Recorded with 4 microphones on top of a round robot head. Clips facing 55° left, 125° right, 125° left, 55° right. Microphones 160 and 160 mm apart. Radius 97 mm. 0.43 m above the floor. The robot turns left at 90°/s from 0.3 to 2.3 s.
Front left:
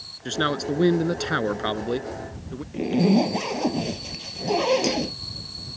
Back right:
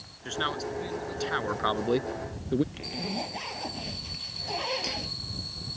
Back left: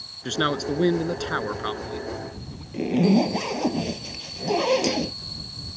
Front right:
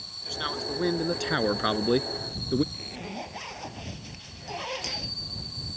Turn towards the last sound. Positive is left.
turn(degrees=90)